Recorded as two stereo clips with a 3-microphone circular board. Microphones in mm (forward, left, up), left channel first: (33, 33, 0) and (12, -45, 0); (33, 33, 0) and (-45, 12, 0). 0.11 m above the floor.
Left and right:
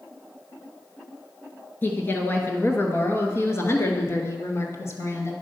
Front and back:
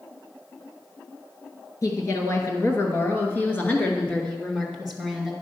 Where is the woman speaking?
25° left, 2 m; by 5.3 s 105° left, 2 m.